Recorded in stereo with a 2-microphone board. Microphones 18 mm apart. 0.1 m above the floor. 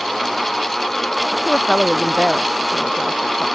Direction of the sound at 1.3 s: 65° left (ahead or behind).